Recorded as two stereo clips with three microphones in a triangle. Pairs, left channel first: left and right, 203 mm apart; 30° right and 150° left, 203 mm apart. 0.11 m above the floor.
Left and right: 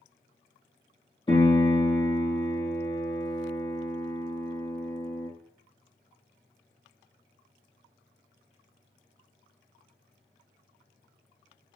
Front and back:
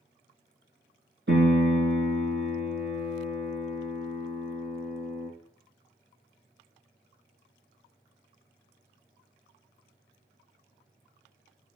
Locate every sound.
1.3 s a piano: 155° left, 4 m